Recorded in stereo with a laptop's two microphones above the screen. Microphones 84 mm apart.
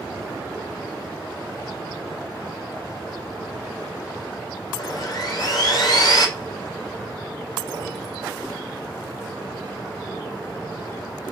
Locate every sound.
4.8 s sawing: 50° left (ahead or behind), 1.1 m